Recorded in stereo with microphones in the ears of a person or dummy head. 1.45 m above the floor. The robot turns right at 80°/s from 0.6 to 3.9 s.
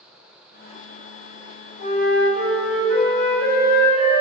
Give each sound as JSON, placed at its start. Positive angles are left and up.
{"t": 1.8, "sound": "a flute", "azimuth_deg": 145, "distance_m": 1.9}